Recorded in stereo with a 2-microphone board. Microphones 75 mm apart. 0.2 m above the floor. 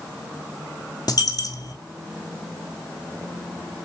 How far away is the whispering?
No whispering in this recording.